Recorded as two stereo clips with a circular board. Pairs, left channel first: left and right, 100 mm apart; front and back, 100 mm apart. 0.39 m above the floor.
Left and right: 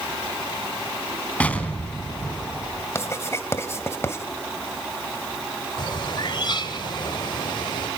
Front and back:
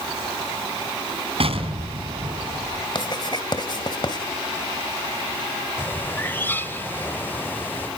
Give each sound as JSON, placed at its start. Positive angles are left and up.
{"t": 1.4, "sound": "an explosion", "azimuth_deg": 165, "distance_m": 3.0}
{"t": 3.0, "sound": "writing", "azimuth_deg": 30, "distance_m": 2.0}
{"t": 5.8, "sound": "a bird", "azimuth_deg": 65, "distance_m": 1.2}